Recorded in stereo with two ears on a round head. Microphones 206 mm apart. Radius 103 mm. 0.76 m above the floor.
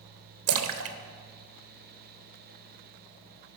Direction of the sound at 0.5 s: 70° right (ahead or behind).